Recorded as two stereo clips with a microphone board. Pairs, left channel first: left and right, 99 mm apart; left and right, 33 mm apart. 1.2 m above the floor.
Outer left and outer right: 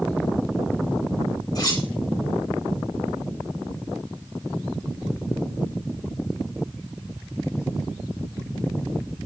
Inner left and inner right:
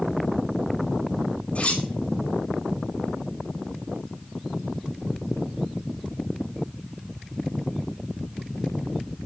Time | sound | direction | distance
1.6 | cutlery clinking | 45° left (ahead or behind) | 3 m